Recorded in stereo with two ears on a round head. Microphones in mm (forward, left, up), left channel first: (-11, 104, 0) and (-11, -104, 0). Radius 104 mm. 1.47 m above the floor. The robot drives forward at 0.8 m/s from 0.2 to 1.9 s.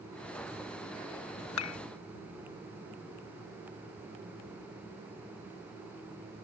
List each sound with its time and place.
1.6 s dishes clattering: 70° left (ahead or behind); by 1.8 s 75° left (ahead or behind)